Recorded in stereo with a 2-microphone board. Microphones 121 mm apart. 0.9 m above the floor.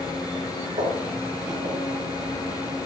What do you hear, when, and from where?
0.8 s footsteps: 85° right, 6.5 m; by 2.6 s 70° right (ahead or behind), 5.5 m